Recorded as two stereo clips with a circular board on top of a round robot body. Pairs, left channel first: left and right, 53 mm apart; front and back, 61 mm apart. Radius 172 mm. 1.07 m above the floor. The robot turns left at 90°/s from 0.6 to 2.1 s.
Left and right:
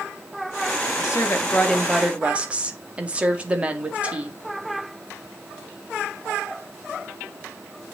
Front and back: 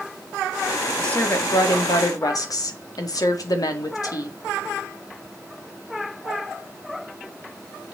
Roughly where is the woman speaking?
Left.